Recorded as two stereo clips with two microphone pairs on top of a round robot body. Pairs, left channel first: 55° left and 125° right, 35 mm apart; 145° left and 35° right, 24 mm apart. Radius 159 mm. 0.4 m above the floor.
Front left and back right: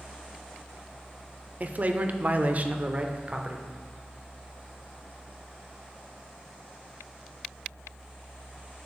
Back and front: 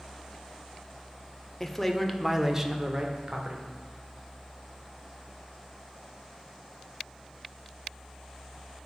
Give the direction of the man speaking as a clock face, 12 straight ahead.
5 o'clock.